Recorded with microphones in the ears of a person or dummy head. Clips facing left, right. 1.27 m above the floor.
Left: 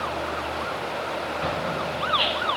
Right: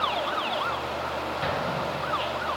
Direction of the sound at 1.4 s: 10° right (ahead or behind).